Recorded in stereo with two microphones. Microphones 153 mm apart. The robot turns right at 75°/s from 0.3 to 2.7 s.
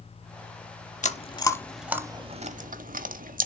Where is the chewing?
50° left (ahead or behind), 0.7 m; by 3.5 s 65° right (ahead or behind), 0.7 m.